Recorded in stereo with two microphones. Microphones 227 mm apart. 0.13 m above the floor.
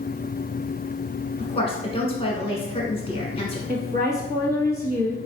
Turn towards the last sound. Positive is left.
turn(degrees=-45)  # may be behind; listen again after turning